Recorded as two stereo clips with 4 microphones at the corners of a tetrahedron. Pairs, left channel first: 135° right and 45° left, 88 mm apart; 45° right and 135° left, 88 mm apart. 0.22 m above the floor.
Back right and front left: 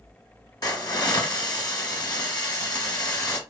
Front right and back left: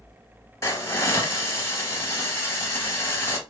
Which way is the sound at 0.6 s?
100° right.